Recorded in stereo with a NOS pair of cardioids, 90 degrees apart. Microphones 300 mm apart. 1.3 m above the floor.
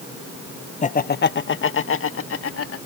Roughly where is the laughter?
Ahead left.